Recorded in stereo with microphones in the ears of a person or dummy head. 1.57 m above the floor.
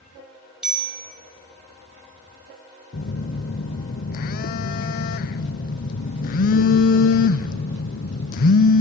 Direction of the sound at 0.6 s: 5° right (ahead or behind).